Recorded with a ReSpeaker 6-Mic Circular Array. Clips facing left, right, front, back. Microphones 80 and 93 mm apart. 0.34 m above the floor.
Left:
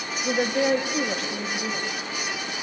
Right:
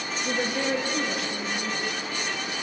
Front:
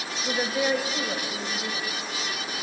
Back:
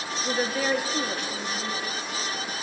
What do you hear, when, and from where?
0.2 s a woman speaking: 80° left, 1.9 m